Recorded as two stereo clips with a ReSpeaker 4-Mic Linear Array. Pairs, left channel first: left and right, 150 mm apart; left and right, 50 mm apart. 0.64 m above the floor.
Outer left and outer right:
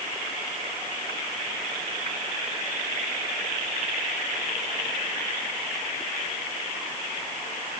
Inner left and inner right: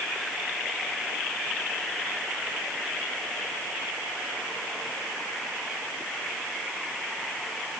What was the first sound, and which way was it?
Only background noise.